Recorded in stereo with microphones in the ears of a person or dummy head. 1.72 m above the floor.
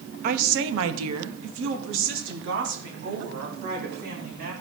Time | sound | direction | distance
0.2 | a woman speaking | 40° right (ahead or behind) | 0.8 m